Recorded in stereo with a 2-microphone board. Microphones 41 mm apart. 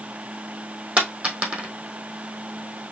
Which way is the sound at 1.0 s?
30° right (ahead or behind).